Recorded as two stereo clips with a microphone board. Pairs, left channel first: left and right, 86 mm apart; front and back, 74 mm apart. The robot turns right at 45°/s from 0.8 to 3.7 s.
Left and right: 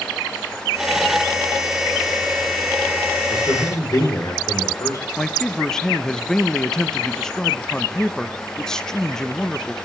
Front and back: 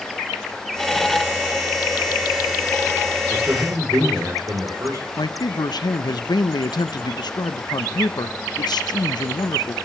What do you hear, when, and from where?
3.3 s a man speaking: 120° left, 4 m; by 5.0 s 135° left, 4 m
5.2 s a man speaking: 5° left, 0.9 m